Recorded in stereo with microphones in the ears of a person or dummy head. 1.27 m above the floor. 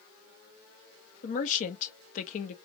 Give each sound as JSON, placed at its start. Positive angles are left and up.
{"t": 1.2, "sound": "a woman speaking", "side_deg": 50, "distance_m": 1.0}